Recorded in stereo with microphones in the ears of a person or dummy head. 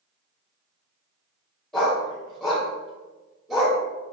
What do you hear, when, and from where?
1.7 s a dog barking: centre (ahead or behind), 1.2 m